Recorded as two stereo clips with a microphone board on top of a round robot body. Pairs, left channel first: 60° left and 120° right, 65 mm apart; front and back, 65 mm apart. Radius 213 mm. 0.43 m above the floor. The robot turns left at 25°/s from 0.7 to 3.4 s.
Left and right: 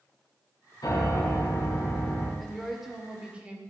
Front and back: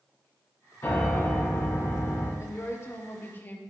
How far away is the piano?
About 4 m.